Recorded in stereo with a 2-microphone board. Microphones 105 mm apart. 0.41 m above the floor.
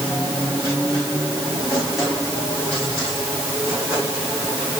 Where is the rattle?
I don't hear a rattle.